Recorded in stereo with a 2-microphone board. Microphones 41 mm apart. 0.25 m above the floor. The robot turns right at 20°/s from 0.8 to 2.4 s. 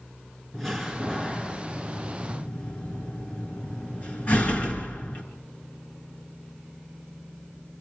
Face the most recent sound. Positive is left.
turn(degrees=40)  # may be behind; listen again after turning